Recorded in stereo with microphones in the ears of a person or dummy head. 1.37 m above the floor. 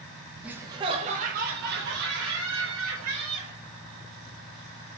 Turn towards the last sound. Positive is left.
turn(degrees=-75)  # may be behind; listen again after turning